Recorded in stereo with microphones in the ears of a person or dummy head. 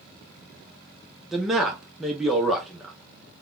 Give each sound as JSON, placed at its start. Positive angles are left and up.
{"t": 1.3, "sound": "a man speaking", "side_deg": 0, "distance_m": 0.5}